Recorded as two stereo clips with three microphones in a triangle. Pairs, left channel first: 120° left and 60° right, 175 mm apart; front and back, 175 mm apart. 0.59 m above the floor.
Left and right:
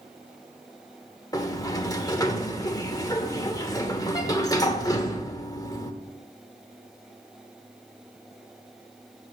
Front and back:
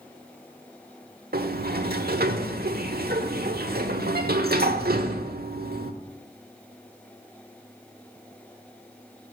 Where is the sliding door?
175° right, 1.1 m.